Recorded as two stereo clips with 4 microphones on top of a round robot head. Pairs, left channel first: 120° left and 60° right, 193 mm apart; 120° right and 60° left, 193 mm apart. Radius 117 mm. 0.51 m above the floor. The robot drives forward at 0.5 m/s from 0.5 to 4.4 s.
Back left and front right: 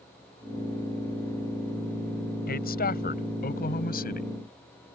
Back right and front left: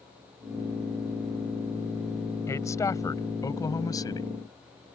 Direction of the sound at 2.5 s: 165° left.